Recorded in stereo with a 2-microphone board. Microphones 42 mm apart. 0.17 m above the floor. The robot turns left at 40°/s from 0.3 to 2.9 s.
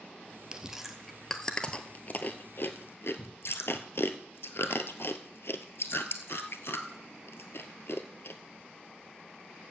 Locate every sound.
0.5 s chewing: 20° right (ahead or behind), 0.8 m; by 8.4 s 70° left (ahead or behind), 0.8 m